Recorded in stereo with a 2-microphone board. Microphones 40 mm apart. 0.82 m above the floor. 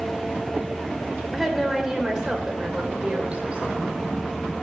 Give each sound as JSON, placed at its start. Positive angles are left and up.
{"t": 1.3, "sound": "a woman speaking", "side_deg": -5, "distance_m": 2.5}